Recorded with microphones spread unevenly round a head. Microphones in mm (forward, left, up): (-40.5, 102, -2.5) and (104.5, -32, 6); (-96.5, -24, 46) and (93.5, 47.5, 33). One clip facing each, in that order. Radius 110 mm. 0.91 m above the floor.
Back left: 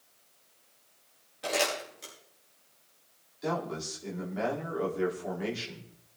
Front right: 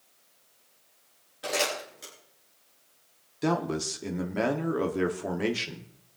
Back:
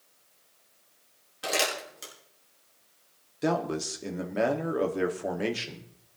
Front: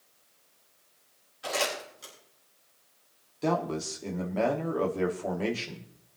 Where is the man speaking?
85° right, 1.8 m.